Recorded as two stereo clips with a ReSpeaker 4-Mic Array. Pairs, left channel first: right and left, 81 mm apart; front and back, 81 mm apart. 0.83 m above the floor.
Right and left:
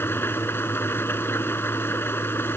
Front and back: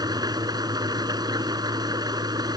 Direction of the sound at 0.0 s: 150° right.